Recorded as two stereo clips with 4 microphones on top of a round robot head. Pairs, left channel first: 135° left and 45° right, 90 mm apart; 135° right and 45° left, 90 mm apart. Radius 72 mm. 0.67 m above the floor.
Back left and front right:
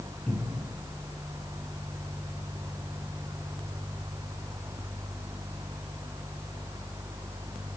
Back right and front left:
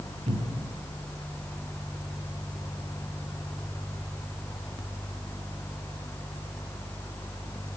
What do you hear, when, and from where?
0.3 s a cupboard door: 55° left, 6.5 m